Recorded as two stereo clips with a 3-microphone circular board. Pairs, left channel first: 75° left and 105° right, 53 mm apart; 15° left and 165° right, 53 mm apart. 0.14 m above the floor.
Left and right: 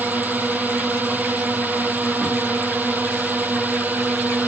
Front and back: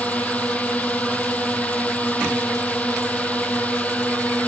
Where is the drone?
50° right.